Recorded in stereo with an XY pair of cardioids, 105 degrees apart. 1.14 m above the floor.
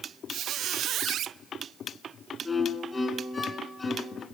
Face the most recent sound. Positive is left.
turn(degrees=20)